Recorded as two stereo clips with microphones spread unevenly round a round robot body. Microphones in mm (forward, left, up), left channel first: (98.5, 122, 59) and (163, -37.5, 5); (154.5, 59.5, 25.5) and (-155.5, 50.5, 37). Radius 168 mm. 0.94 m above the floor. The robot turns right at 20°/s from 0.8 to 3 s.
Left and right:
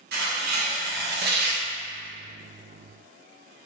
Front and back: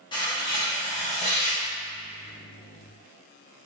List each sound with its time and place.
0.1 s tearing paper: 75° right, 0.6 m; by 1.6 s 60° right, 0.6 m